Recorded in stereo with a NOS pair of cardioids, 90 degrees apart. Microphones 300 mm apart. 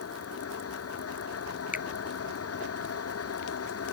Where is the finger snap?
25° left.